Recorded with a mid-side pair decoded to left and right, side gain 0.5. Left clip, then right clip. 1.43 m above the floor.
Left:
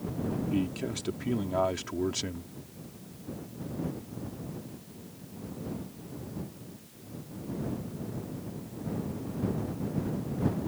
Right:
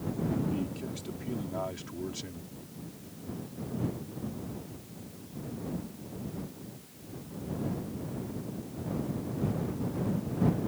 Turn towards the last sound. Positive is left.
turn(degrees=55)